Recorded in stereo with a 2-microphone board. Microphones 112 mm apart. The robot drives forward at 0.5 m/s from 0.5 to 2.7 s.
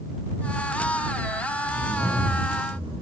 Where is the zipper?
75° right (ahead or behind), 3 m; by 3.0 s 70° right (ahead or behind), 3 m.